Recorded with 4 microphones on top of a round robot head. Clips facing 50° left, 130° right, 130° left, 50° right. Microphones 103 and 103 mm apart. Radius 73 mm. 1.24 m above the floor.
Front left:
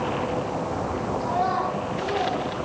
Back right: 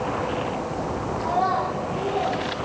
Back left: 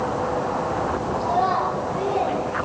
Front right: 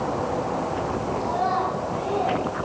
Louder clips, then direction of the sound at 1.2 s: Back right 2 dB, back left 3 dB; straight behind.